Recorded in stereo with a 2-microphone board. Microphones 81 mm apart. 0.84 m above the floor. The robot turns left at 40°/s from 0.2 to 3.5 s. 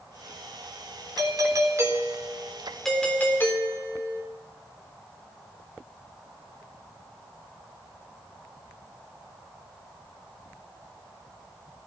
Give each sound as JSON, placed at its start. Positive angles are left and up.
{"t": 1.2, "sound": "a doorbell", "azimuth_deg": -120, "distance_m": 3.5}